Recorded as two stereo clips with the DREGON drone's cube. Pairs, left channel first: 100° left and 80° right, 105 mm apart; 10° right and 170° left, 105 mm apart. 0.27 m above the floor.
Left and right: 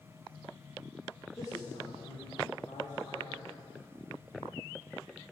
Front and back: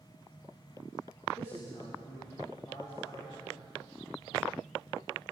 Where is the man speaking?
45° left, 8 m.